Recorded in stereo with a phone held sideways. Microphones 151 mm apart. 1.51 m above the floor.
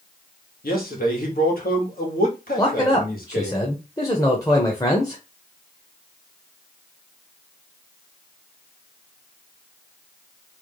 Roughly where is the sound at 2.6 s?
Left.